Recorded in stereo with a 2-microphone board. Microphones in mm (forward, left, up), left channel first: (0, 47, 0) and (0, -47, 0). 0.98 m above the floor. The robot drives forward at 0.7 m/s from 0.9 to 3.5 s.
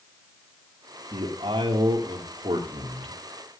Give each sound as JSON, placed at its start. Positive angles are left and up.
{"t": 1.1, "sound": "a man speaking", "side_deg": -75, "distance_m": 2.5}